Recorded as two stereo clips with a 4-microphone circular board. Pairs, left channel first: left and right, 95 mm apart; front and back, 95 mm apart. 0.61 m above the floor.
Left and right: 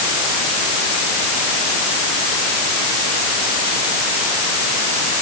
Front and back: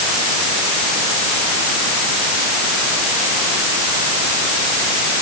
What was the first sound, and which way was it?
Only background noise.